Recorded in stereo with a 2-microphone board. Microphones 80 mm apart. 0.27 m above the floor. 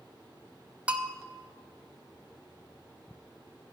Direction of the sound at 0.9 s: 15° right (ahead or behind).